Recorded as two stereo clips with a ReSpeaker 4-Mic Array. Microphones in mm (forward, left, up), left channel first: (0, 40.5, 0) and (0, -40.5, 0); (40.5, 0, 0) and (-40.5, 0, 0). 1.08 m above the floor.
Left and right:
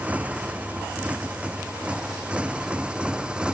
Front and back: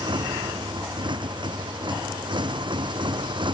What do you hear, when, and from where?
0.0 s a motorcycle: 160° right; by 3.6 s 170° right